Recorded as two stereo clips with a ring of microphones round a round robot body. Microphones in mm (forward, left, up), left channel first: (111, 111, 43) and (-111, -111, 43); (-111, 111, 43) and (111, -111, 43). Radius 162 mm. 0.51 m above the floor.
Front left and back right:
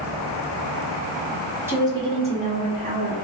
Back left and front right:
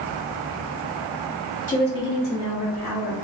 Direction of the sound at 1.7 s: 150° left.